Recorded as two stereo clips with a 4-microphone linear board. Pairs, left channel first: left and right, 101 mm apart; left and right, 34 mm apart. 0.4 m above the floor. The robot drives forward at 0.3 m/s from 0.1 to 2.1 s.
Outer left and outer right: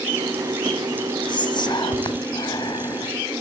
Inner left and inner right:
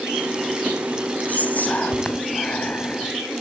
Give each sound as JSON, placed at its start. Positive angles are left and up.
{"t": 1.3, "sound": "whispering", "side_deg": 50, "distance_m": 2.0}